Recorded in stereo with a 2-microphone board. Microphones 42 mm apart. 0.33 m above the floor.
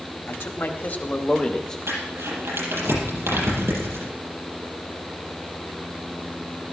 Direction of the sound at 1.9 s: 75° right (ahead or behind).